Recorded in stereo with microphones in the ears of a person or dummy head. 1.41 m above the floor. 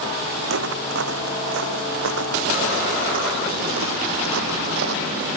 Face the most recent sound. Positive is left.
turn(degrees=-65)  # may be behind; listen again after turning